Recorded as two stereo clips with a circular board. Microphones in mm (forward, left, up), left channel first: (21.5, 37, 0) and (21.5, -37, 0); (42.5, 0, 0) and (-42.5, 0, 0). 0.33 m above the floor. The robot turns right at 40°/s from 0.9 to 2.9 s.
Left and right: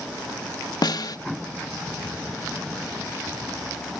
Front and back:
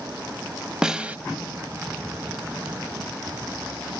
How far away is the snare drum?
About 0.6 m.